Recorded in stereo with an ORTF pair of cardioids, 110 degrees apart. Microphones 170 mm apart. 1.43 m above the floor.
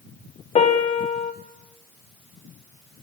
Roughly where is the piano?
Ahead left.